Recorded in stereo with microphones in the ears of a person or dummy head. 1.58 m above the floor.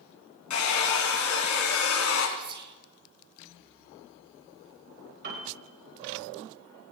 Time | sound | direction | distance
0.5 | a hair dryer | 75° left (ahead or behind) | 3 m
2.4 | whispering | 25° right (ahead or behind) | 2.5 m
5.2 | a piano | 50° right (ahead or behind) | 4 m